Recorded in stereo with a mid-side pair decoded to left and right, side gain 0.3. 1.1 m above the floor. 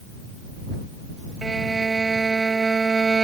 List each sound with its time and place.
1.4 s a violin: 40° right